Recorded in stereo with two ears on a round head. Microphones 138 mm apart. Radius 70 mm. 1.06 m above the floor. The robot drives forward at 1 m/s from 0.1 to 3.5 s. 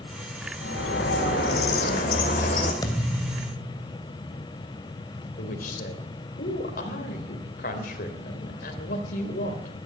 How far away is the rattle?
I don't hear a rattle.